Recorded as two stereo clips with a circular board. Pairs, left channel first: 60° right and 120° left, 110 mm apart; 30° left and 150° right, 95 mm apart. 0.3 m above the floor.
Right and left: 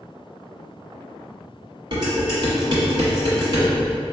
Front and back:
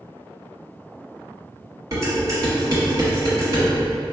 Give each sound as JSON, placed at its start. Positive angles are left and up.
{"t": 1.9, "sound": "dishes clattering", "azimuth_deg": 160, "distance_m": 1.5}